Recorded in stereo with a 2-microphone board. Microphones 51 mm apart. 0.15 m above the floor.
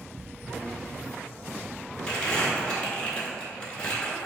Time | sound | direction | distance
2.1 | crumpling | 25° left (ahead or behind) | 0.6 m